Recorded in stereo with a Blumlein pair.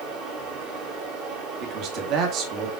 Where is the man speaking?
35° right, 1.8 m.